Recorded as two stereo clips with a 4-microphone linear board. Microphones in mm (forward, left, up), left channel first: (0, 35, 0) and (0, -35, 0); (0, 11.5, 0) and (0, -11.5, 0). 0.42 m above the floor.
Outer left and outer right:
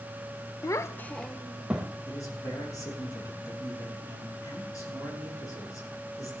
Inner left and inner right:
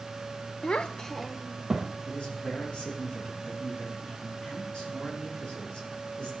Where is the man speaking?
50° left (ahead or behind), 5.5 m.